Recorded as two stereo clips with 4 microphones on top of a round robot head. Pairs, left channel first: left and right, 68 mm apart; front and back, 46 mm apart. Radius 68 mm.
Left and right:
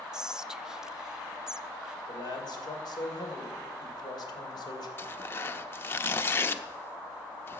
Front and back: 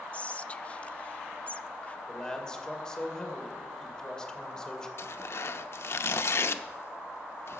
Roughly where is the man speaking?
Left.